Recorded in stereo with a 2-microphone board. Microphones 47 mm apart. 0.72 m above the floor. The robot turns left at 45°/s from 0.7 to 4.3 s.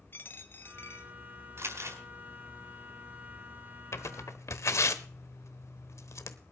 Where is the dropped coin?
50° left (ahead or behind), 1.3 m; by 1.1 s 70° left (ahead or behind), 1.3 m.